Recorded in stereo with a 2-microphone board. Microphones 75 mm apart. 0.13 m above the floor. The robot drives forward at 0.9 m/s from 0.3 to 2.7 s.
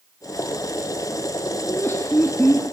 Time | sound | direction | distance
1.6 | laughter | 35° left (ahead or behind) | 1.4 m